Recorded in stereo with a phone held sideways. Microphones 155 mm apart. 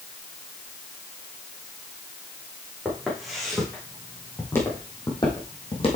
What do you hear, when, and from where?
2.9 s footsteps: 5° right (ahead or behind), 4 m; by 6.0 s 40° left (ahead or behind), 3 m